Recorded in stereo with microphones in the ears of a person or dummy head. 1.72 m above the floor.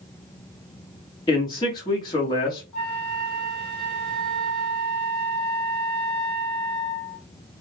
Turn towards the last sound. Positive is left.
turn(degrees=5)  # may be behind; listen again after turning